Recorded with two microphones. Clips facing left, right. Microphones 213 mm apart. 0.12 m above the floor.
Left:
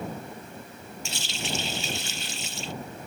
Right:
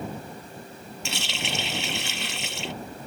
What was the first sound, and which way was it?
A running tap, 65° right (ahead or behind).